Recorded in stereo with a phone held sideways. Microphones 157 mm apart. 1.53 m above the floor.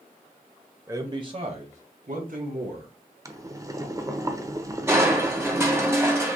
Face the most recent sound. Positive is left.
turn(degrees=-15)  # may be behind; listen again after turning